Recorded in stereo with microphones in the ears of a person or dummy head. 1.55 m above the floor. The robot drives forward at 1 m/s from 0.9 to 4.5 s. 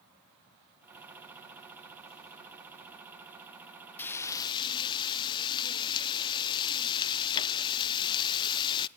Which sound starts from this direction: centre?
Frying, at 4.0 s.